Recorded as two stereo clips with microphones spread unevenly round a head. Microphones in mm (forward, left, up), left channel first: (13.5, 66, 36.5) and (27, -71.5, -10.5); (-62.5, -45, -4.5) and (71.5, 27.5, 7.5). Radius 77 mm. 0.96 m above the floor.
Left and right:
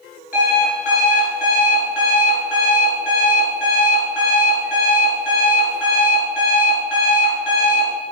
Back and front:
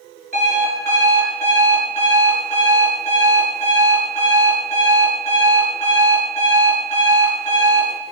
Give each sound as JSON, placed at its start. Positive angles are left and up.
{"t": 0.3, "sound": "an alarm clock", "azimuth_deg": 70, "distance_m": 7.5}